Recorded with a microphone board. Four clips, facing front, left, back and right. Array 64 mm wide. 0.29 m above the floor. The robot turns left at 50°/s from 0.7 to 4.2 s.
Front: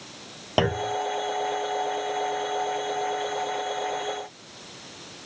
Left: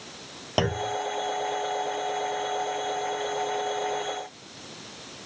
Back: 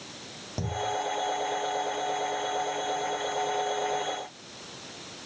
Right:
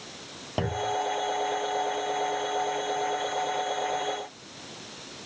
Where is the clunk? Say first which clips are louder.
Left 2 dB, front 7 dB; 20° left; by 1.0 s 5° left.